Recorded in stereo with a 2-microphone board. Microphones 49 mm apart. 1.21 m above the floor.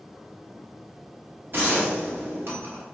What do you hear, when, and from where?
1.5 s a gunshot: 45° right (ahead or behind), 1.3 m